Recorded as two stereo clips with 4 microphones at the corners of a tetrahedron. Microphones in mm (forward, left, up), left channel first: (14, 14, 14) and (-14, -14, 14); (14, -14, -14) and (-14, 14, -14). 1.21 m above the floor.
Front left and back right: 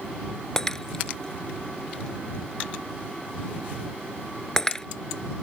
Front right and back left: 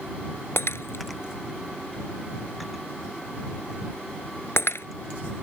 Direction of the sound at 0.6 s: 30° right.